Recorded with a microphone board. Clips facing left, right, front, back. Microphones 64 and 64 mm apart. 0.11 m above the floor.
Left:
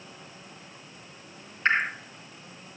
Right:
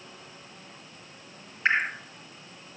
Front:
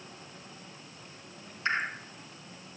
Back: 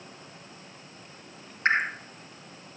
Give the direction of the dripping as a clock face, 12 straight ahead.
6 o'clock.